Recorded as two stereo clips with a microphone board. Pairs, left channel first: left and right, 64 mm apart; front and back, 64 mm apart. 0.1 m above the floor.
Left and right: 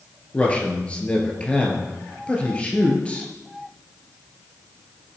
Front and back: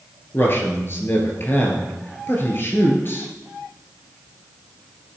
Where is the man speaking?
25° left, 2 m.